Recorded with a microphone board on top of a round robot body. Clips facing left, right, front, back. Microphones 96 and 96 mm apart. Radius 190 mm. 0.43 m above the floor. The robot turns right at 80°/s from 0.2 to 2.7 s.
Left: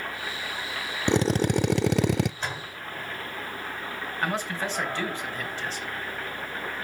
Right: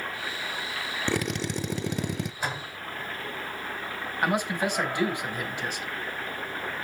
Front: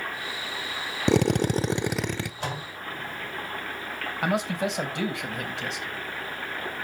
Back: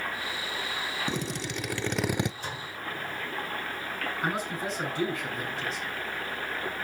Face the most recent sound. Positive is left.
turn(degrees=-15)